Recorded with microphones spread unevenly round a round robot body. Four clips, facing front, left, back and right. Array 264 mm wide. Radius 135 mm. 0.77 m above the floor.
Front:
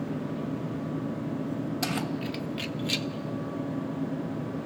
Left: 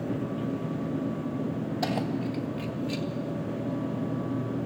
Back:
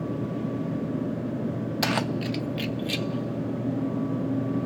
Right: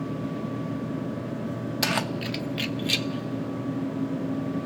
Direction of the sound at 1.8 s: 130° right.